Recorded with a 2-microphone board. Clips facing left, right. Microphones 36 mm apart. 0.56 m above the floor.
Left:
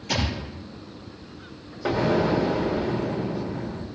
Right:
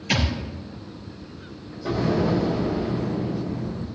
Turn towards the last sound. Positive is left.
turn(degrees=55)  # may be behind; listen again after turning